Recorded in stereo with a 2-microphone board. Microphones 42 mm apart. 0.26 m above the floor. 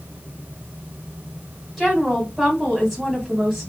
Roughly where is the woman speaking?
Centre.